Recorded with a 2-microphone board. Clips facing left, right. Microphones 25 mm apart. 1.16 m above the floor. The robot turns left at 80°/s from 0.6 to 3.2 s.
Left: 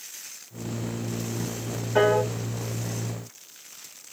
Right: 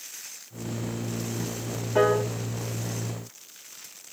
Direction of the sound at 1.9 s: 25° left (ahead or behind).